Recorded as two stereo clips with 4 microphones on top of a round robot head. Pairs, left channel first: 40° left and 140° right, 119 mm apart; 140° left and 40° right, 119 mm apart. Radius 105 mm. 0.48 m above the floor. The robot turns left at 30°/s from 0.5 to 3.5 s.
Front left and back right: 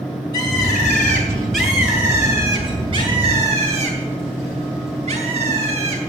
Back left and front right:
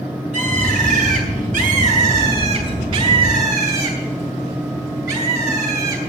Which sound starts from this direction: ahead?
A bird, at 0.3 s.